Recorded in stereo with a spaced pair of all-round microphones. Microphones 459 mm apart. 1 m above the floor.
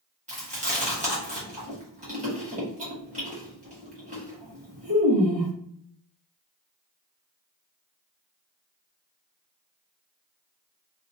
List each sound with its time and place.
0.3 s chewing: 15° right (ahead or behind), 1.5 m